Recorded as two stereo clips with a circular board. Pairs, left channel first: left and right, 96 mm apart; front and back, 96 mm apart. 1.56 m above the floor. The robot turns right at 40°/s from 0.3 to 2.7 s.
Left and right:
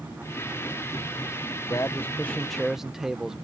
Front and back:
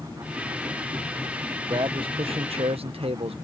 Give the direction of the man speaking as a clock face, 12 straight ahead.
7 o'clock.